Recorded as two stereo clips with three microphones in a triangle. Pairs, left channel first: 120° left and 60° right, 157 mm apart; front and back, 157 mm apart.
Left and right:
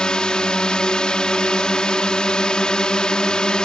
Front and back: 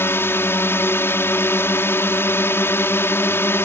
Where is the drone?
45° left.